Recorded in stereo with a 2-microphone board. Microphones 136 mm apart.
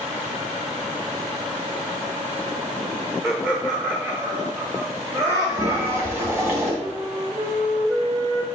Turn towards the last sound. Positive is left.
turn(degrees=-25)  # may be behind; listen again after turning